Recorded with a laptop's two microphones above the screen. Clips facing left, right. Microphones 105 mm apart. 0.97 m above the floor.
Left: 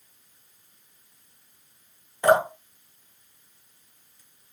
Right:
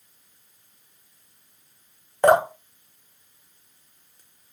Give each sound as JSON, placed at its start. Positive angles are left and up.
{"t": 2.2, "sound": "dripping", "side_deg": -50, "distance_m": 0.8}